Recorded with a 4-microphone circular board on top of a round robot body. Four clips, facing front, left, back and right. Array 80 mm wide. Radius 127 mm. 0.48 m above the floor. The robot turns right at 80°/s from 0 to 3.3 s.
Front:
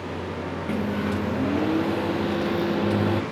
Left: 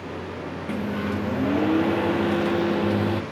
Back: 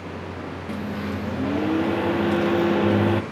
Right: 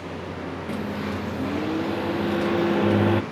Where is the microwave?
30° left; by 3.2 s 130° right.